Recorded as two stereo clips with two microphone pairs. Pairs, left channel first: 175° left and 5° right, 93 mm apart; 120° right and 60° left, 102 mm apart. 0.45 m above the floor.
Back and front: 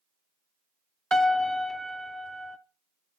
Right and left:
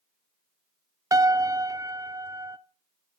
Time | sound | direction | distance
1.1 | a piano | 95° left | 0.7 m